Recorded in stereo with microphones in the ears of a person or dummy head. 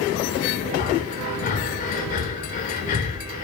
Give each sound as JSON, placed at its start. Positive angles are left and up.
{"t": 0.8, "sound": "breathing", "side_deg": 45, "distance_m": 4.5}